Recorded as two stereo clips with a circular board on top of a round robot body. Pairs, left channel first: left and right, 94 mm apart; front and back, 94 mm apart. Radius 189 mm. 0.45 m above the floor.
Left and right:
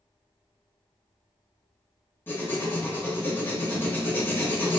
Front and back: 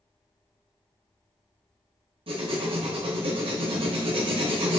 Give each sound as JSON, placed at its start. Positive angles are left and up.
{"t": 2.3, "sound": "writing", "azimuth_deg": 160, "distance_m": 0.9}